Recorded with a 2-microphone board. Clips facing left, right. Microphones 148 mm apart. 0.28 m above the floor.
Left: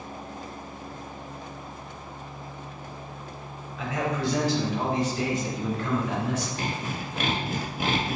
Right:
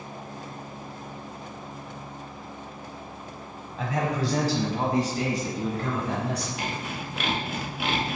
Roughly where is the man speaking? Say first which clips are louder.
Right 1 dB; right.